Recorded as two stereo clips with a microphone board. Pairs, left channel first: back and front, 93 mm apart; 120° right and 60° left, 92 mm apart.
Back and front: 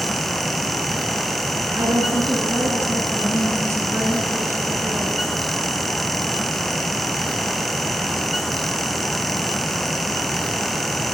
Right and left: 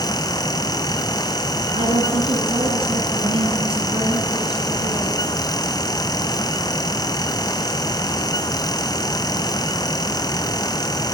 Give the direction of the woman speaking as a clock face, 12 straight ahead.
10 o'clock.